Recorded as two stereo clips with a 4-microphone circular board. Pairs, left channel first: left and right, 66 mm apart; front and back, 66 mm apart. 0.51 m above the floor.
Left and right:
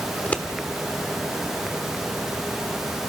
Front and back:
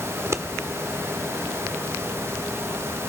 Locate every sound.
0.1 s scissors: 150° left, 1.1 m